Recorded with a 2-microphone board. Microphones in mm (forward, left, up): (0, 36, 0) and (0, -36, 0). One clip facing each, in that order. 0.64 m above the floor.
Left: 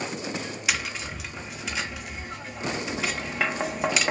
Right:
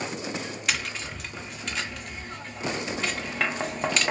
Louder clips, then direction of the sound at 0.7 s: Left 1 dB; 5° left (ahead or behind).